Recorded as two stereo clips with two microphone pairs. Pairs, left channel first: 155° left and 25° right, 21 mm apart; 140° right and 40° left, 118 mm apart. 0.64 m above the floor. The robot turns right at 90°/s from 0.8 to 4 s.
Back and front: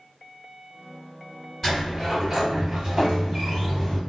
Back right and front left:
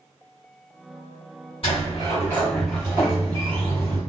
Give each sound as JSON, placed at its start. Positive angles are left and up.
{"t": 1.6, "sound": "a sliding door", "azimuth_deg": -135, "distance_m": 1.7}